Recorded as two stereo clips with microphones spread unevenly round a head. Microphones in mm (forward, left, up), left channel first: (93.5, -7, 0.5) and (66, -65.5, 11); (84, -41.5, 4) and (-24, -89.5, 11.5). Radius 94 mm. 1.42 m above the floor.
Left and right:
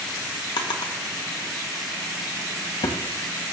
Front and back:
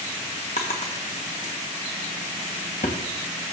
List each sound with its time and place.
0.6 s a drawer: 80° left, 1.2 m